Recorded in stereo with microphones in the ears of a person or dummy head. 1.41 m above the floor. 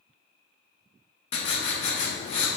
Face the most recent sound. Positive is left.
turn(degrees=35)  # may be behind; listen again after turning